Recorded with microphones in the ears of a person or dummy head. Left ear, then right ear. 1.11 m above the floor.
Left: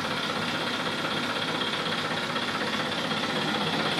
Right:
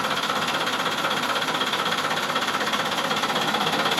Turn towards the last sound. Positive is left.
turn(degrees=-45)  # may be behind; listen again after turning